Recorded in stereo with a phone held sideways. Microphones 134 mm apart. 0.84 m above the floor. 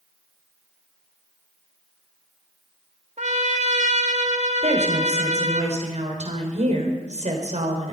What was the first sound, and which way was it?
A trumpet, 60° right (ahead or behind).